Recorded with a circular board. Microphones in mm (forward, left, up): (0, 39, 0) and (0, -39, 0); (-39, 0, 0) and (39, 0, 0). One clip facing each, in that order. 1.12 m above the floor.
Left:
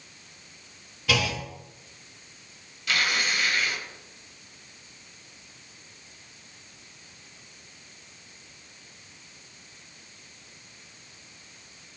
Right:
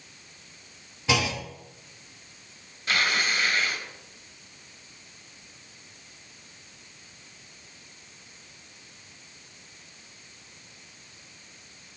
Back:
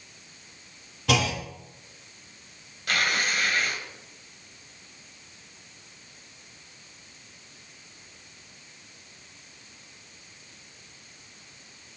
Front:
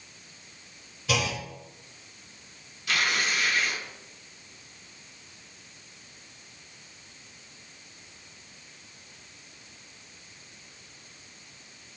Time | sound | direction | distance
1.1 | a clunk | 155° right | 1.7 m
2.9 | tearing paper | 145° right | 2.5 m